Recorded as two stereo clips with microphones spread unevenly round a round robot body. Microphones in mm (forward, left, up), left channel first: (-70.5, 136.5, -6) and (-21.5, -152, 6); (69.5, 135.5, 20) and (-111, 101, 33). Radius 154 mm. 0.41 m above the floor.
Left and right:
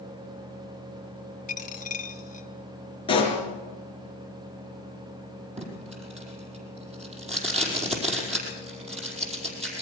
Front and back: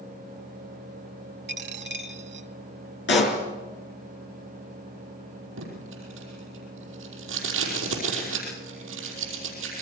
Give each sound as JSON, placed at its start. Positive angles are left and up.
{"t": 1.5, "sound": "a dropped coin", "azimuth_deg": 165, "distance_m": 1.3}
{"t": 3.1, "sound": "a pop", "azimuth_deg": 25, "distance_m": 4.0}
{"t": 5.6, "sound": "tape being pulled", "azimuth_deg": -150, "distance_m": 5.0}